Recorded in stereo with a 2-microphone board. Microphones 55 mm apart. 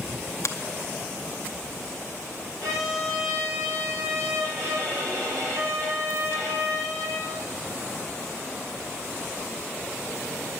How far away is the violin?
About 3.5 m.